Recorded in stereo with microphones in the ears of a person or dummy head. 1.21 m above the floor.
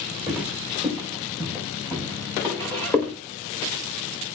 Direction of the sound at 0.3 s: Centre (ahead or behind).